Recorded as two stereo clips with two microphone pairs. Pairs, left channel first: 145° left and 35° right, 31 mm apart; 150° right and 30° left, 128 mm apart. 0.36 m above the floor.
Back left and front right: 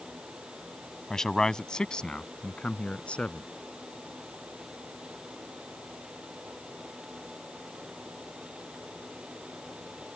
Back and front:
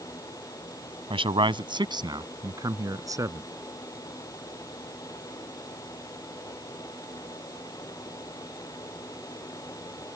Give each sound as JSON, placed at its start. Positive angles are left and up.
{"t": 1.1, "sound": "a man speaking", "azimuth_deg": 70}